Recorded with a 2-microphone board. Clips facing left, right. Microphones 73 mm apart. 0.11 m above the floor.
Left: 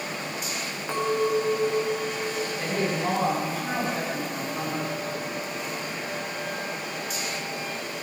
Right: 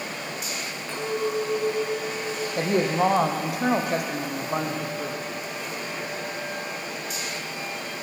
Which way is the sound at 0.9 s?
20° left (ahead or behind).